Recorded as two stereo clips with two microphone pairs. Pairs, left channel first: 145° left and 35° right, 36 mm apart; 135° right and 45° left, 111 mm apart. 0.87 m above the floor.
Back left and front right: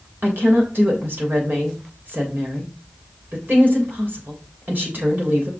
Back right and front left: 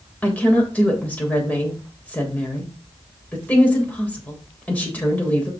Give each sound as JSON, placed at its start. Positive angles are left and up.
{"t": 0.2, "sound": "a woman speaking", "azimuth_deg": -60, "distance_m": 3.5}